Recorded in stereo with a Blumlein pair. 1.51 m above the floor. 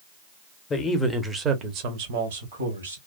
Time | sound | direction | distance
0.7 | a man speaking | 20° left | 0.8 m